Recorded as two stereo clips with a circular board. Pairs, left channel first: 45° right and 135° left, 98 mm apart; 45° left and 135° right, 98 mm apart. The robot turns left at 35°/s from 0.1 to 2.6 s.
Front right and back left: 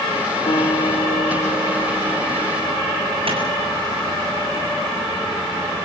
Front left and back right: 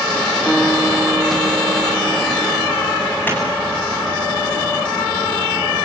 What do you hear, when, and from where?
0.5 s a guitar: 45° right, 3.5 m; by 3.1 s 120° right, 3.5 m
3.3 s a clap: 115° left, 8.5 m